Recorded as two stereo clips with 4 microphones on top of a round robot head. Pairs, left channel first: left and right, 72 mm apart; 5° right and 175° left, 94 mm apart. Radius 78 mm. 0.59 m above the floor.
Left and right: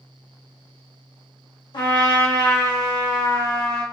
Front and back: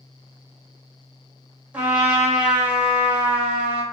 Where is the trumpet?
100° left, 1.3 m.